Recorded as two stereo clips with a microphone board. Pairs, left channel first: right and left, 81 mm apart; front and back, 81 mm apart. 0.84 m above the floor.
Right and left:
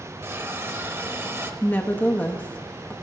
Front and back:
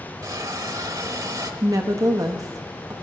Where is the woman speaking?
150° right, 0.9 m.